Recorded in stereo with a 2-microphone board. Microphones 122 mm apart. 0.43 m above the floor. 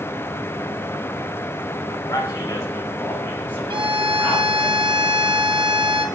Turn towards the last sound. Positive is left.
turn(degrees=-45)  # may be behind; listen again after turning